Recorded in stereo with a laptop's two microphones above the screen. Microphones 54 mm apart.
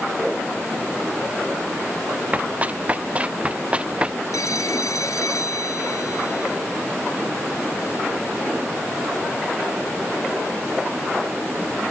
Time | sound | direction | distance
2.3 | running footsteps | 25° right (ahead or behind) | ?
4.3 | a phone ringing | 80° left | ?